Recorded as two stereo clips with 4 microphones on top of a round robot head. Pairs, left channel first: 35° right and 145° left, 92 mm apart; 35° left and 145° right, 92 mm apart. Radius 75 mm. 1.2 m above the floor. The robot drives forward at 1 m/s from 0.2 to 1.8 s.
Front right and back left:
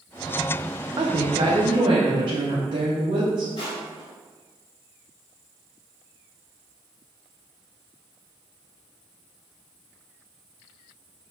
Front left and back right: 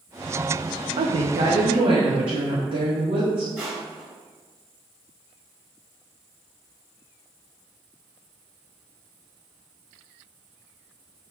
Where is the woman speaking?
160° right, 0.6 m; by 3.5 s 175° right, 1.4 m.